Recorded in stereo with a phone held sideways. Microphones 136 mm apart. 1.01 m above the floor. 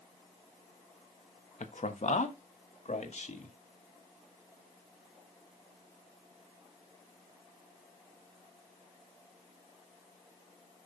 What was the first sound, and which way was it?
A man speaking, 65° left (ahead or behind).